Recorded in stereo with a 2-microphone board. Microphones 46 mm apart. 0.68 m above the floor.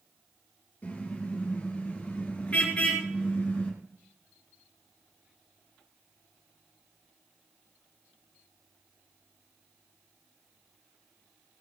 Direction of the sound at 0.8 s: 35° left (ahead or behind).